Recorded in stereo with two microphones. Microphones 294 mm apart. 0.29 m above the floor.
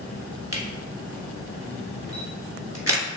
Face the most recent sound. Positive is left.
turn(degrees=-55)  # may be behind; listen again after turning